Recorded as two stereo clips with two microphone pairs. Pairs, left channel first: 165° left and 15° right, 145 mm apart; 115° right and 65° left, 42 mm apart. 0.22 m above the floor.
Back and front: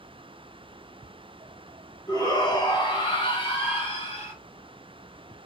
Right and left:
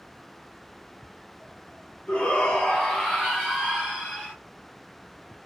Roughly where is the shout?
Behind.